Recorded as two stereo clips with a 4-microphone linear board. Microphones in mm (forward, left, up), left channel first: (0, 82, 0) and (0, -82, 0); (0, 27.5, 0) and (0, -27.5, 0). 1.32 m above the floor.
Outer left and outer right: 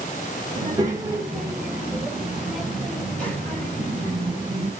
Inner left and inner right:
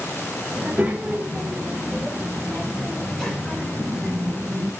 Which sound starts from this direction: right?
A child speaking, at 0.6 s.